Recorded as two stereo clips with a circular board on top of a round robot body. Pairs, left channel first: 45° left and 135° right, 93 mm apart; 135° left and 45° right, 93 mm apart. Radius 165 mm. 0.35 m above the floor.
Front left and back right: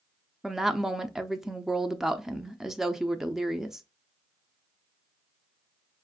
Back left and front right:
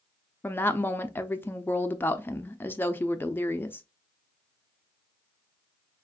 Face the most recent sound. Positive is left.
turn(degrees=145)